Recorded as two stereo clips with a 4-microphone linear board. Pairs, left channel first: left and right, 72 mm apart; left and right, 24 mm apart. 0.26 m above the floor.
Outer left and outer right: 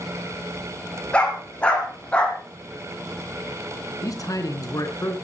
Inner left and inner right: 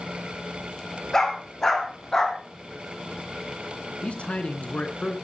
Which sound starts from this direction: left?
A man speaking, at 4.0 s.